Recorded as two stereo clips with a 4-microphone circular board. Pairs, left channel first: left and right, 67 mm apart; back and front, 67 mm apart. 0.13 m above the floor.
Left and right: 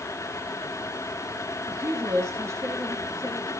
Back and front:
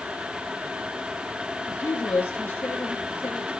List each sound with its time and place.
1.7 s a woman speaking: 125° right, 4 m